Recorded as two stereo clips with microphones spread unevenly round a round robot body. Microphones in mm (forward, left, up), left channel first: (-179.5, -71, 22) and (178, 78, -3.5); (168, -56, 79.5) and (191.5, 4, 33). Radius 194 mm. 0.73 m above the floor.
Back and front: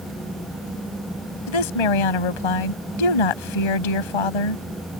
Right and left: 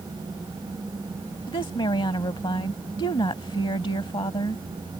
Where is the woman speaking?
140° right.